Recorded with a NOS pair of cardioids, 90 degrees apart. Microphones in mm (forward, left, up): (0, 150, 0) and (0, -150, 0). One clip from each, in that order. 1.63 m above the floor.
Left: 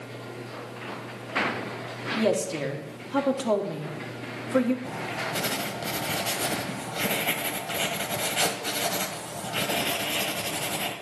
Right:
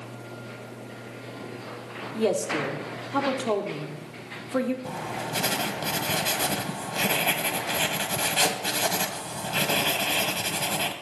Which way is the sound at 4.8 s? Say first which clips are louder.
Left 1 dB; 20° right.